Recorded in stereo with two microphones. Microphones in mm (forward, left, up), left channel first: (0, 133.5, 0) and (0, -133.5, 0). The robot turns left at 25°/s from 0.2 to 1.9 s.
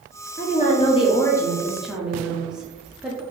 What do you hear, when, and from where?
0.4 s a woman speaking: 35° left, 0.8 m; by 3.2 s 5° right, 0.8 m